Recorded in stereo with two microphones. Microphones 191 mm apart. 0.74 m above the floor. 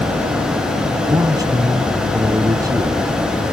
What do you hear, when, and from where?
1.1 s a man speaking: 20° right (ahead or behind)